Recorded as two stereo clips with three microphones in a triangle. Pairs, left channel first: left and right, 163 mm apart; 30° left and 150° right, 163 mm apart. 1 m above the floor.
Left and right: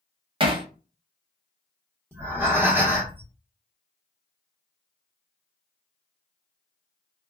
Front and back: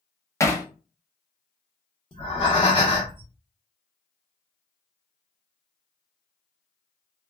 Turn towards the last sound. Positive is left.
turn(degrees=-20)